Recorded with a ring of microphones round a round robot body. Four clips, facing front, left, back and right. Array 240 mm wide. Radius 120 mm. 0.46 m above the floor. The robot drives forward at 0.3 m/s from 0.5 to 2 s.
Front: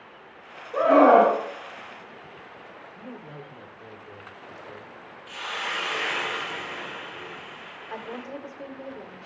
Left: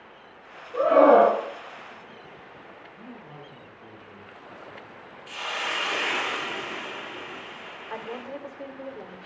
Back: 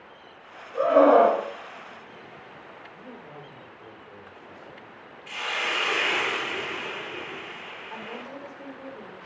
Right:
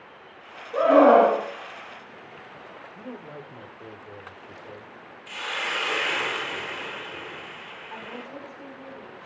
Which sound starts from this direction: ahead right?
A scream, at 0.7 s.